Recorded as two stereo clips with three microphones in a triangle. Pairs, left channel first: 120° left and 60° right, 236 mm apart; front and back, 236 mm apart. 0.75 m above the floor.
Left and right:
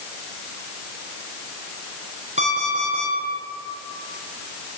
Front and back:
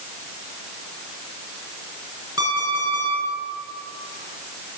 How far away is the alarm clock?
About 4 m.